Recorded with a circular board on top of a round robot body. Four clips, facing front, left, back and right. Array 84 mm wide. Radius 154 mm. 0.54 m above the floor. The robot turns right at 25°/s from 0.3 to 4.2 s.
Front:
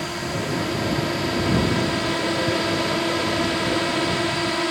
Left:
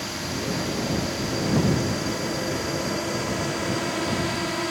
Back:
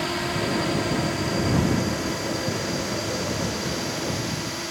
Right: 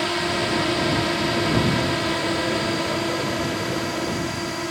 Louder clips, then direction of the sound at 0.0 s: Right 7 dB, back 1 dB; 95° right.